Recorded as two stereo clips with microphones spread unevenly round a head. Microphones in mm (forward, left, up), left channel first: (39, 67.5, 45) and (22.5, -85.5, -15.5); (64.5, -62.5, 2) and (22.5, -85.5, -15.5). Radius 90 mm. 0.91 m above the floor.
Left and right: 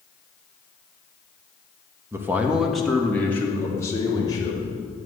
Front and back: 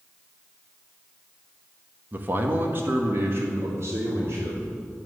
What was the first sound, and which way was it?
A man speaking, 150° right.